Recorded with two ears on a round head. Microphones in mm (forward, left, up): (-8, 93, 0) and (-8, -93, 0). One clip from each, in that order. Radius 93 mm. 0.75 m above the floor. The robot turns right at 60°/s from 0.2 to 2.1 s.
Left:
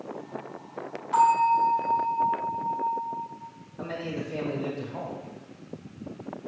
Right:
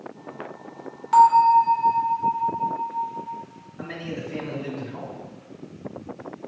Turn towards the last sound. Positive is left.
turn(degrees=15)  # may be behind; listen again after turning